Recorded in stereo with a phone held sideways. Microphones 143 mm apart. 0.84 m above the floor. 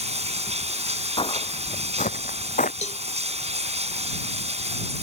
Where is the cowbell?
55° left (ahead or behind).